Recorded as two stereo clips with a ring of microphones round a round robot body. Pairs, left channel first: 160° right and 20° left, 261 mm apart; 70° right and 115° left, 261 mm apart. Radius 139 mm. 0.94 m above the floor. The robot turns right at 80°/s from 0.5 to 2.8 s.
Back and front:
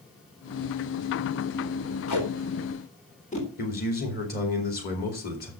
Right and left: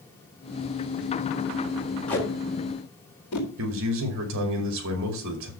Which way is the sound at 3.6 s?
150° left.